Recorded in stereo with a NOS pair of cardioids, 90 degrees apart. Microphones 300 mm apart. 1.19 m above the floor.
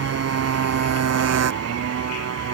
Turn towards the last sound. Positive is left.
turn(degrees=-55)